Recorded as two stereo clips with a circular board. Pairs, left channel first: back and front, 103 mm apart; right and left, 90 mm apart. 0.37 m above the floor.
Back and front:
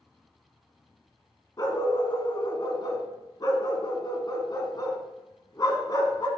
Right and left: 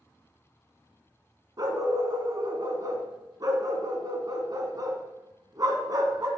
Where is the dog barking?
135° left, 1.2 m.